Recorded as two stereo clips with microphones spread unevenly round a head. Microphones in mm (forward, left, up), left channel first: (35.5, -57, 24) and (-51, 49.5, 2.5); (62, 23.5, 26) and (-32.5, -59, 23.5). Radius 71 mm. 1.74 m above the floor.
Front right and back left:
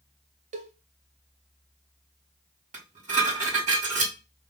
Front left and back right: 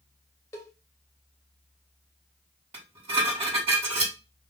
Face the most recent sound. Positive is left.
turn(degrees=170)